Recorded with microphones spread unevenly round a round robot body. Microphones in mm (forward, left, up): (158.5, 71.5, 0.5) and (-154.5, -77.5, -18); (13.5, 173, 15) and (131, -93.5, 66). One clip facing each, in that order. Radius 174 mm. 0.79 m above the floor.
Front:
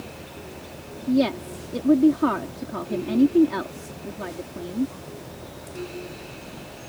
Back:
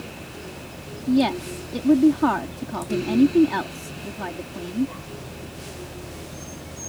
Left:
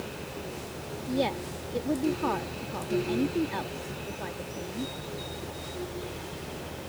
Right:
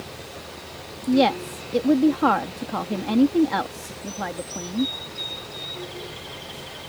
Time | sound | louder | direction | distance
1.1 | a woman speaking | back 1 dB, right 10 dB | 80° right | ?